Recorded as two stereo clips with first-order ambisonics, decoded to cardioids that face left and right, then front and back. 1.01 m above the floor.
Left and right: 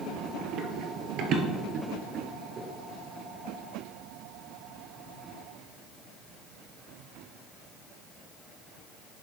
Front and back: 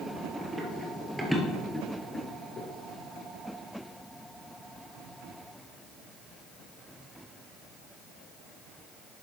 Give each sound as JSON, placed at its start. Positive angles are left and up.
{"t": 0.4, "sound": "running footsteps", "azimuth_deg": -110, "distance_m": 1.6}